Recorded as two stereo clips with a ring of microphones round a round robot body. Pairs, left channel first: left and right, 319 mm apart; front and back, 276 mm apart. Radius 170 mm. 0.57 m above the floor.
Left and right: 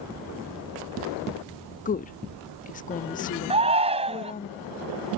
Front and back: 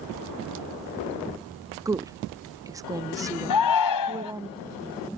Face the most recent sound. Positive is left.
turn(degrees=-20)